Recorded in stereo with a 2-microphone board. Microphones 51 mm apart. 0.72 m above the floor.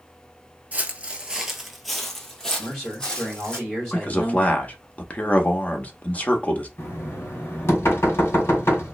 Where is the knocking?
55° left (ahead or behind), 1.9 m.